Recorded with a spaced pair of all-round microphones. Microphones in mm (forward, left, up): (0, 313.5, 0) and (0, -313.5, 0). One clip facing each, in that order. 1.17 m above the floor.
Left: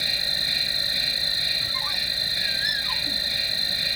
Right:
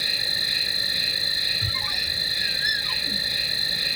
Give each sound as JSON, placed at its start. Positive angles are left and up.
{"t": 0.0, "sound": "an insect", "side_deg": 15}
{"t": 1.6, "sound": "a squeak", "side_deg": -50}